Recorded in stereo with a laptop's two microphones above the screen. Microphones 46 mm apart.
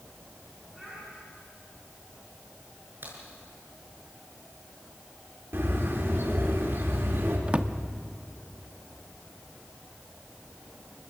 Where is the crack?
50° right (ahead or behind), 7.5 m.